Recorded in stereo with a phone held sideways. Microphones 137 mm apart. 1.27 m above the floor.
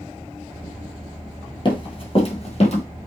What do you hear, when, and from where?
1.6 s running footsteps: 35° left (ahead or behind), 1.6 m; by 2.8 s 50° left (ahead or behind), 2.0 m